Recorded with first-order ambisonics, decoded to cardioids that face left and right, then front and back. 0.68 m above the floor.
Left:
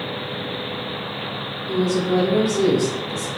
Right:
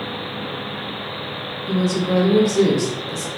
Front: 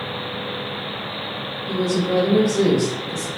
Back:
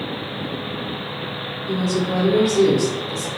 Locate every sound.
1.7 s a woman speaking: 95° right, 0.9 m